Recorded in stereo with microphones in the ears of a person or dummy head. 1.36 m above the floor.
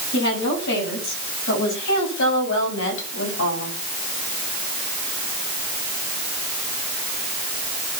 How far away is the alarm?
I don't hear an alarm.